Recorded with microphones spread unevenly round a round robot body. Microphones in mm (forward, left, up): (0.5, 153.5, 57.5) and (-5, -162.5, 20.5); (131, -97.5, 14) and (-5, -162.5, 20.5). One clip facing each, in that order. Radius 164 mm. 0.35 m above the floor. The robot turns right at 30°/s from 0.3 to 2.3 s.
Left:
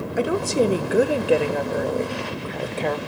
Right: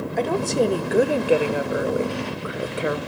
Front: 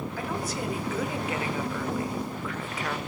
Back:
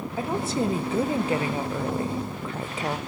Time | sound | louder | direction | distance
0.2 | a woman speaking | left 1 dB, back 8 dB | 170° left | 1.0 m